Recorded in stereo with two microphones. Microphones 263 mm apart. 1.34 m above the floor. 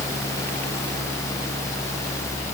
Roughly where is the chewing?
I don't hear chewing.